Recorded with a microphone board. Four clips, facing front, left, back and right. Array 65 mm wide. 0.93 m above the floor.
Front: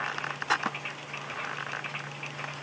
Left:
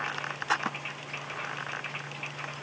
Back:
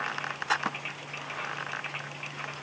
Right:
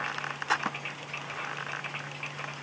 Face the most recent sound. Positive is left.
No sound to turn to.